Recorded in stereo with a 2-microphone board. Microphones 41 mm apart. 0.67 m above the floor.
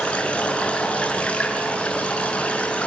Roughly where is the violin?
I don't hear a violin.